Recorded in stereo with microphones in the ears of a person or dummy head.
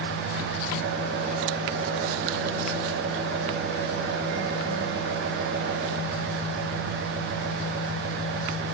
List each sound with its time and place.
0.0 s an engine running: 60° right (ahead or behind), 2.5 m